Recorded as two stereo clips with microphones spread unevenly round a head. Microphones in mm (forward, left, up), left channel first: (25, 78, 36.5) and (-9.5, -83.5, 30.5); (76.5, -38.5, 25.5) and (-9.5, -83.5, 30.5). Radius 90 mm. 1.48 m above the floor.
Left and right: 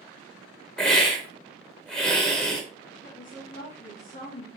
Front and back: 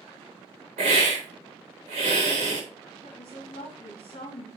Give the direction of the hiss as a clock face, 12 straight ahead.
7 o'clock.